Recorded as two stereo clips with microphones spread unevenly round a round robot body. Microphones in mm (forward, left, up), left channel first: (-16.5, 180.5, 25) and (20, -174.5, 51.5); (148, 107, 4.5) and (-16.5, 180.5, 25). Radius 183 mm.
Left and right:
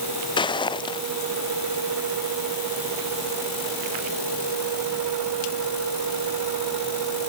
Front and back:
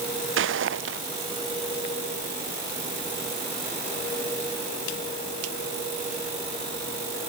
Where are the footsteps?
175° left.